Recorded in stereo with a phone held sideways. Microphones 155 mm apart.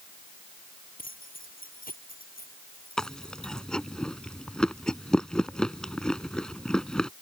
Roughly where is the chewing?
Centre.